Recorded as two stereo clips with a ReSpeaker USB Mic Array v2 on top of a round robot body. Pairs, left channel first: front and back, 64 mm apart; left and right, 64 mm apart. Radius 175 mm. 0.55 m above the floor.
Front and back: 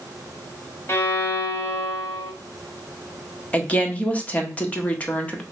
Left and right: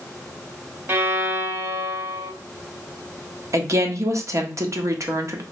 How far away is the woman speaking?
About 1.2 m.